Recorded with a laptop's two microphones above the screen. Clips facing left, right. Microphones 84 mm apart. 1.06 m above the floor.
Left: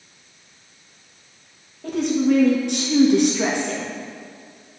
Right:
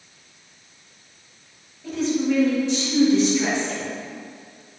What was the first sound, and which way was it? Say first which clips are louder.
A woman speaking: left 3 dB; 65° left (ahead or behind).